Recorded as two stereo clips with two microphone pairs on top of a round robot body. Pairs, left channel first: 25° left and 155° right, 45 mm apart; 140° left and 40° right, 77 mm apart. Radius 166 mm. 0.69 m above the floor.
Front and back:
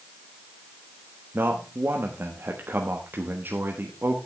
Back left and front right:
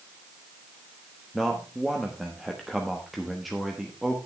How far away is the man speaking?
About 1.5 m.